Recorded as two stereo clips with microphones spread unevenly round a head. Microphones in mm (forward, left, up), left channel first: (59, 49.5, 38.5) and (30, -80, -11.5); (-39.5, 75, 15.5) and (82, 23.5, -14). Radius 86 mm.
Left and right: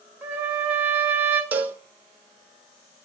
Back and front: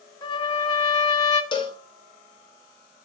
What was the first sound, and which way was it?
A trumpet, 155° left.